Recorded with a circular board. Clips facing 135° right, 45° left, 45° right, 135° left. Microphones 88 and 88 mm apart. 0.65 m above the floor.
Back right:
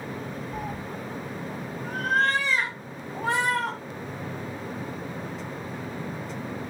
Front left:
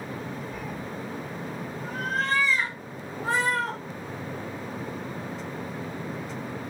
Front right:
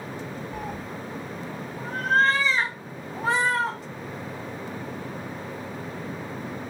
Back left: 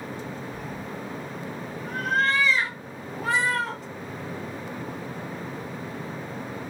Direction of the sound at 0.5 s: 75° right.